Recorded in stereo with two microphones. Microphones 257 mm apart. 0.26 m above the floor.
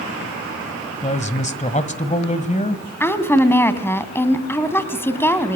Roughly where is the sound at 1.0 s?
Left.